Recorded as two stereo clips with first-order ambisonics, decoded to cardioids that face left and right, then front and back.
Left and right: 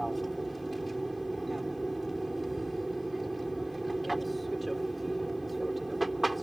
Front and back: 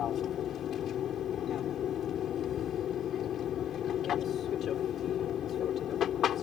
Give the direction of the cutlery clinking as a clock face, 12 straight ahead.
I don't hear cutlery clinking.